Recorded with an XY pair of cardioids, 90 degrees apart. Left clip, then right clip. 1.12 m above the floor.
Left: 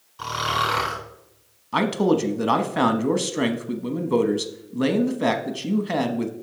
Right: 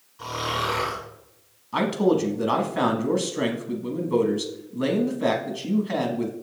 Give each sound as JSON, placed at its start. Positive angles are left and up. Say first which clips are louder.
{"t": 0.2, "sound": "snoring", "louder": "left 4 dB", "azimuth_deg": 70, "distance_m": 4.0}
{"t": 1.7, "sound": "a man speaking", "louder": "left 1 dB", "azimuth_deg": 40, "distance_m": 1.1}